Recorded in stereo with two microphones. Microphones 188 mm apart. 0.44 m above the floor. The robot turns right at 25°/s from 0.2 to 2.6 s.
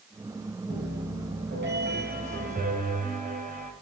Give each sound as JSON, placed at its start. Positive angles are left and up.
{"t": 0.7, "sound": "a piano", "azimuth_deg": -100, "distance_m": 1.0}